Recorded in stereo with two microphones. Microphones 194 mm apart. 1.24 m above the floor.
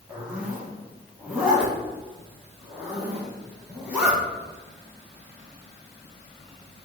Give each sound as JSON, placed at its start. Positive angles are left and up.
{"t": 0.1, "sound": "a zipper", "side_deg": -5, "distance_m": 1.5}